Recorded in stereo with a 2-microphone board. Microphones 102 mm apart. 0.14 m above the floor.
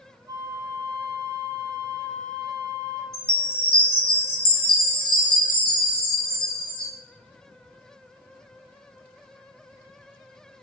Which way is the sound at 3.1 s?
55° left (ahead or behind).